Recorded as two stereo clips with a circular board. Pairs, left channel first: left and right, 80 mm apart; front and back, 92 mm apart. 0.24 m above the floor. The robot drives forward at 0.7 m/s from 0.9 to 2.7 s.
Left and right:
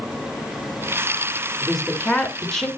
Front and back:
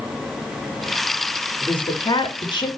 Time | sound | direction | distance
1.6 | a woman speaking | 10° left | 3 m